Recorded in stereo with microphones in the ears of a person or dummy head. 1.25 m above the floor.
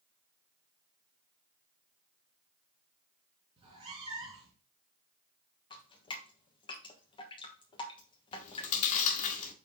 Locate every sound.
3.6 s a cat meowing: 25° right (ahead or behind), 3 m
5.7 s dripping: 20° left (ahead or behind), 1.3 m
8.3 s chewing: 40° left (ahead or behind), 1.4 m